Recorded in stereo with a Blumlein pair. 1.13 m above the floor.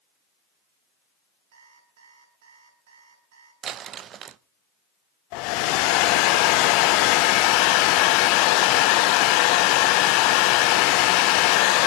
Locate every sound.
1.5 s an alarm clock: 60° right, 8.5 m
3.6 s crumpling: 30° right, 0.5 m
5.3 s a hair dryer: 45° left, 0.6 m